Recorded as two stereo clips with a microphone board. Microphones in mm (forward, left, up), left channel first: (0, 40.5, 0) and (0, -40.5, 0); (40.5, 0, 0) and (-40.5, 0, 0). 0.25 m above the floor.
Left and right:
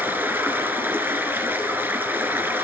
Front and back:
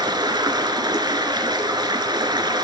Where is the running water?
155° right, 1.9 m.